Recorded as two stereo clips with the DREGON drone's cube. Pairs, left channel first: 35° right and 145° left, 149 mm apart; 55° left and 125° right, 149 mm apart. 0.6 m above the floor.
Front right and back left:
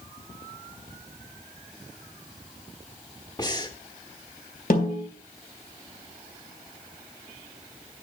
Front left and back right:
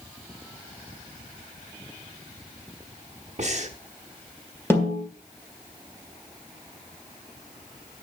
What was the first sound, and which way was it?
Breathing, 95° right.